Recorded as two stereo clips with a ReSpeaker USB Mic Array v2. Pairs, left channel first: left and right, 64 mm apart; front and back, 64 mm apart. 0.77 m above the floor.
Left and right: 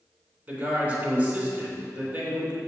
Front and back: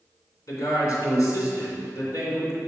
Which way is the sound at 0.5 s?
30° right.